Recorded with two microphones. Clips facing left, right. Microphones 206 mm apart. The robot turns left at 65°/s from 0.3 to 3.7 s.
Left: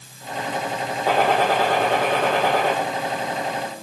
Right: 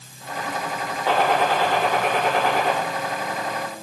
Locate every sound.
1.1 s a gunshot: 170° left, 7 m; by 2.7 s 60° left, 7 m